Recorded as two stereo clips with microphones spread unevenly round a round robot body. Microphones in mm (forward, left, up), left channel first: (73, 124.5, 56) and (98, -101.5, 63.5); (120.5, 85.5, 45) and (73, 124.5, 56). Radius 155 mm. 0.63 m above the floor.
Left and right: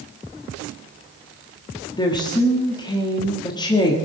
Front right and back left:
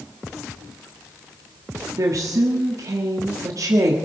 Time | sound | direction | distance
2.0 | a woman speaking | 160° left | 1.5 m